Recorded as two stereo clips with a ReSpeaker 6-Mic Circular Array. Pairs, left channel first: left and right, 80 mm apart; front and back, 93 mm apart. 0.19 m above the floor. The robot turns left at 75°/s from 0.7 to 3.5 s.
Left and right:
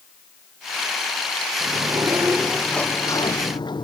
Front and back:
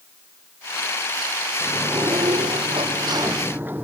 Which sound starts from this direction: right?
A sliding door, at 1.6 s.